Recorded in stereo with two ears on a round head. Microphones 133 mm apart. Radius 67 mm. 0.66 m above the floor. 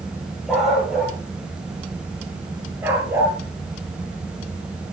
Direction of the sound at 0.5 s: Centre (ahead or behind).